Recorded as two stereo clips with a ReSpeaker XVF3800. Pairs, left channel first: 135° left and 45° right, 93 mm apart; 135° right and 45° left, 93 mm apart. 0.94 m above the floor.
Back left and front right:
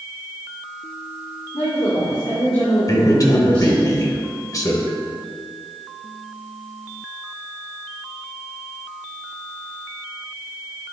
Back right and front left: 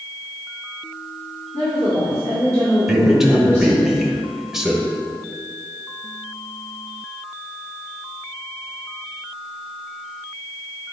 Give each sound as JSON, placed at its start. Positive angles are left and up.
{"t": 1.5, "sound": "a woman speaking", "azimuth_deg": 165, "distance_m": 2.5}
{"t": 2.9, "sound": "a man speaking", "azimuth_deg": 130, "distance_m": 1.1}